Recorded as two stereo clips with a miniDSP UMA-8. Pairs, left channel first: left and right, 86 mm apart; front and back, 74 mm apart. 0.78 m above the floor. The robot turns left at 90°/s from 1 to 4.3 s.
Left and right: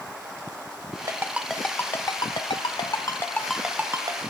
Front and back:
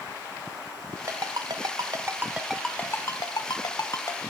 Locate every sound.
1.1 s a ringtone: 135° right, 1.3 m; by 4.2 s 60° right, 1.3 m